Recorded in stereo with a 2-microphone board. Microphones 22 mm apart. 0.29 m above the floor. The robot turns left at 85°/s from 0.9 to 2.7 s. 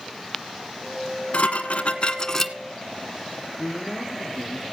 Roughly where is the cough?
I don't hear a cough.